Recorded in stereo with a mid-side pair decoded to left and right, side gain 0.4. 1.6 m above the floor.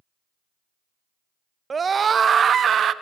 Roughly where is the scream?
Ahead right.